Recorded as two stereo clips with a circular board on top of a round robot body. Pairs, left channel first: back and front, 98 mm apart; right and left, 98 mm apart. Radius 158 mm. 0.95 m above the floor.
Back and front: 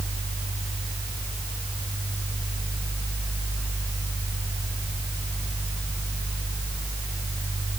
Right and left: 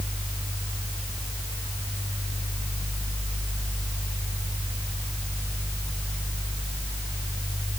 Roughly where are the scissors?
I don't hear scissors.